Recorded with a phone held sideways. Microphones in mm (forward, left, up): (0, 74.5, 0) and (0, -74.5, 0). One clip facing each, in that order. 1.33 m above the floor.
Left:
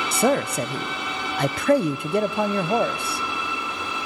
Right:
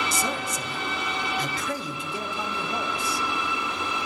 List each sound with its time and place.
0.1 s a man speaking: 65° left (ahead or behind), 0.7 m